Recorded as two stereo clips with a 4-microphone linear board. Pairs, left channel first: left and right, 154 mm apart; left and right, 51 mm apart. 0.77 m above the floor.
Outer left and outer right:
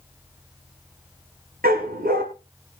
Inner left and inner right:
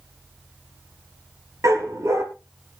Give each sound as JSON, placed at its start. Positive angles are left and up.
{"t": 1.6, "sound": "a dog barking", "side_deg": -75, "distance_m": 4.5}